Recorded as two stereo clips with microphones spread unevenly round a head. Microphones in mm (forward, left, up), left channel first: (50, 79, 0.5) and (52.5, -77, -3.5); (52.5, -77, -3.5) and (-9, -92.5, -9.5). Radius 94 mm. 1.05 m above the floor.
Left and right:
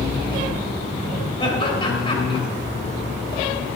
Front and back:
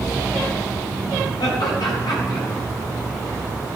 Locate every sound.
1.4 s laughter: 30° left, 4 m